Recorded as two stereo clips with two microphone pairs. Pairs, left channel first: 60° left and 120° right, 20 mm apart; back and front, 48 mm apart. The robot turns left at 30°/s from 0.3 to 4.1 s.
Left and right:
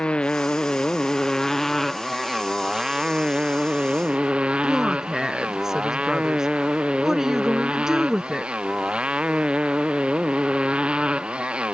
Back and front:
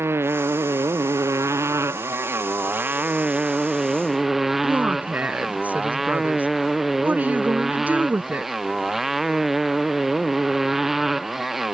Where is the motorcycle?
25° left; by 11.8 s 85° right.